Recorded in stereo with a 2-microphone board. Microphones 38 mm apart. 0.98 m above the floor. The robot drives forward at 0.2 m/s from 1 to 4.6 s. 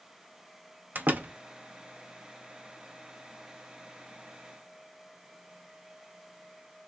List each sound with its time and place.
0.9 s a door slam: 55° right (ahead or behind), 0.7 m; by 1.3 s 60° right (ahead or behind), 0.6 m